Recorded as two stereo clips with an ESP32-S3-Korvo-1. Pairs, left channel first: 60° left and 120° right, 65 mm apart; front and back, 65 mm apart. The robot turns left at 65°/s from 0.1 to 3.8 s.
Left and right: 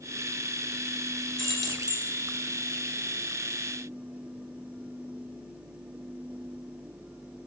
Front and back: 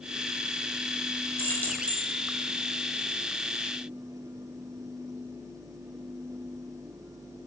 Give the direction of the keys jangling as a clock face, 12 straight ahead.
1 o'clock.